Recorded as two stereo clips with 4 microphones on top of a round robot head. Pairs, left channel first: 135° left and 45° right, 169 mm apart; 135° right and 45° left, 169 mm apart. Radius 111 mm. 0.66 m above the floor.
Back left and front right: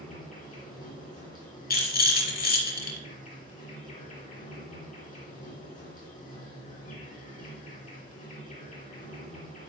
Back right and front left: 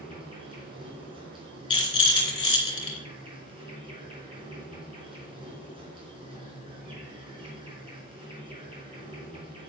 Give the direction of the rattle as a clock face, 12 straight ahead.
7 o'clock.